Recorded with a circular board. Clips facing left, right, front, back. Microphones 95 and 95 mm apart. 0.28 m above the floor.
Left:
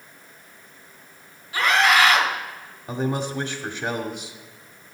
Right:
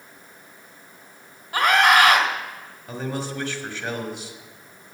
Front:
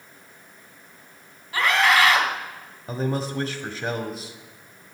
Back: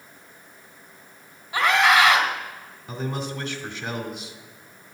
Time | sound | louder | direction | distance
1.5 | a scream | right 2 dB, back 1 dB | 110° right | 2.5 m
2.9 | a man speaking | left 4 dB, front 4 dB | 30° left | 1.7 m